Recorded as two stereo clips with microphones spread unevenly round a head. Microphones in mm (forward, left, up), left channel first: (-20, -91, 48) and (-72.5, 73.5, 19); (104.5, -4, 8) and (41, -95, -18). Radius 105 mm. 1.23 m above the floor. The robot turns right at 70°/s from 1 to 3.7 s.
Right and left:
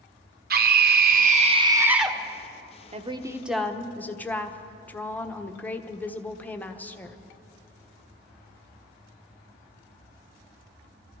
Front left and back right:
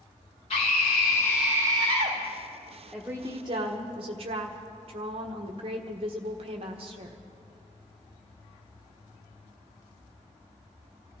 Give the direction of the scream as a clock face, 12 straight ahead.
8 o'clock.